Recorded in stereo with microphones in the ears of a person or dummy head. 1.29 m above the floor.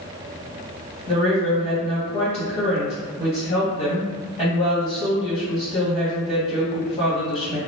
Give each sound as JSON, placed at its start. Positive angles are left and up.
{"t": 1.1, "sound": "a woman speaking", "side_deg": 35, "distance_m": 1.6}